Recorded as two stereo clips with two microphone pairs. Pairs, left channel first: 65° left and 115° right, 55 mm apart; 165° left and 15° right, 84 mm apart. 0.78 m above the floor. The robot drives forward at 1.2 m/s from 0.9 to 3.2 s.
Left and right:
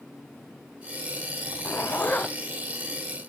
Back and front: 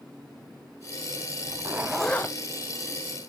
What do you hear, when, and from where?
1.4 s a zipper: 30° left, 1.0 m; by 2.4 s 125° left, 0.8 m